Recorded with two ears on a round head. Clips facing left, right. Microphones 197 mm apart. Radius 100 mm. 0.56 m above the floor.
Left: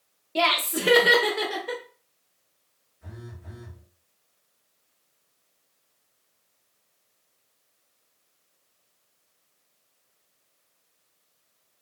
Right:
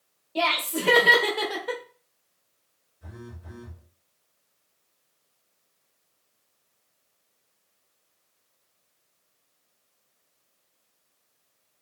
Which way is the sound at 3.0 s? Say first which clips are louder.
Right 1 dB; 10° right (ahead or behind).